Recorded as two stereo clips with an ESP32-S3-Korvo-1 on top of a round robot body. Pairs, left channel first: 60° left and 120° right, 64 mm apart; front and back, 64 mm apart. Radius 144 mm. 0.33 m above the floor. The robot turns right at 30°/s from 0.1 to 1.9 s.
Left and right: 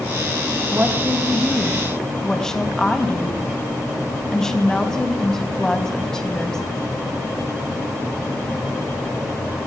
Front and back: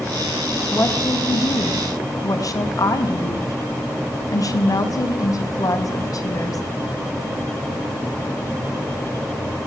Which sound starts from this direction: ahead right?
A woman speaking, at 0.7 s.